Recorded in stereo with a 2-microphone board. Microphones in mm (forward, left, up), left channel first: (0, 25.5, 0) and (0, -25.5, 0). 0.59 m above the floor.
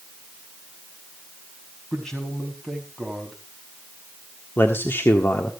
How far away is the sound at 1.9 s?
About 4.5 m.